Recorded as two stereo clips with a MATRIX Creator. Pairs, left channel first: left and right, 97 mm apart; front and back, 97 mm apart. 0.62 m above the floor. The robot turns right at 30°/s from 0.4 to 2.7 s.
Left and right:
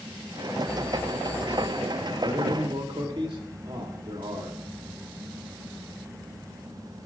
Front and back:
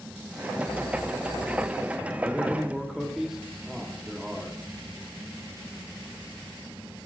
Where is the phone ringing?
5° left, 4.5 m; by 2.1 s 50° left, 4.5 m.